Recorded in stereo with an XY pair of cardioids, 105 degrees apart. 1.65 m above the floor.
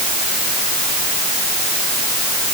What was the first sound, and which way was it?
Only background noise.